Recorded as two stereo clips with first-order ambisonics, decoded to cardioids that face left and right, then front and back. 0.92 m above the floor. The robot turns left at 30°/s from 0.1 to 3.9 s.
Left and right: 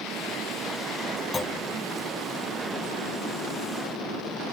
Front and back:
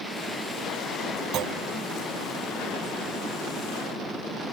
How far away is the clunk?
About 0.8 m.